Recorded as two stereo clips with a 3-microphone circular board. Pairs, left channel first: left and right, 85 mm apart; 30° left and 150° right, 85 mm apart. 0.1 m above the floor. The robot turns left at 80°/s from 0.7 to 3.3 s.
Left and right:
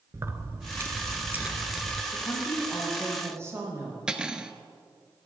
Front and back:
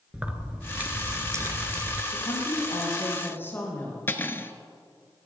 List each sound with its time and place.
0.1 s keys jangling: 85° right, 1.0 m; by 2.0 s 170° left, 1.0 m
2.1 s a woman speaking: 60° left, 5 m; by 4.0 s 35° right, 5 m
4.1 s cutlery clinking: 15° right, 0.9 m